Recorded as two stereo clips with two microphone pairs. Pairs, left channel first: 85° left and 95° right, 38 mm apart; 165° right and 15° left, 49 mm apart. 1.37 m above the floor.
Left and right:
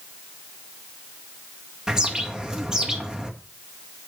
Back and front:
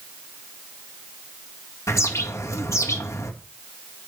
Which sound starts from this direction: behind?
A bird, at 1.9 s.